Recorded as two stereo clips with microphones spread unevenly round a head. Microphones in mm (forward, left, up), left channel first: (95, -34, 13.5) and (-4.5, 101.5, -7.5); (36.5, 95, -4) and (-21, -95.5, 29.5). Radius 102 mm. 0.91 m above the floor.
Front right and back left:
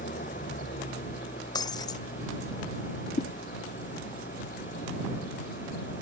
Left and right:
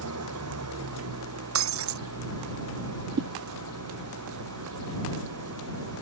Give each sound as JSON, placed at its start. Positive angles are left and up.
{"t": 0.0, "sound": "an engine running", "azimuth_deg": -110}
{"t": 1.6, "sound": "breaking glass", "azimuth_deg": -125}
{"t": 3.2, "sound": "a whoosh", "azimuth_deg": -85}